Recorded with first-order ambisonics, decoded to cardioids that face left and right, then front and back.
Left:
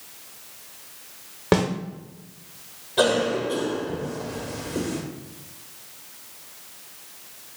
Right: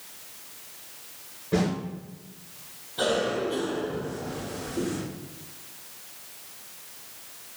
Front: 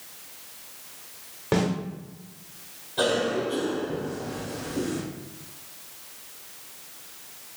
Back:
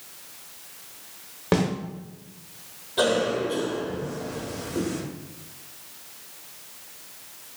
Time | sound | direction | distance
1.5 | a snare drum | 105° left | 1.0 m
3.0 | a cough | 115° left | 1.4 m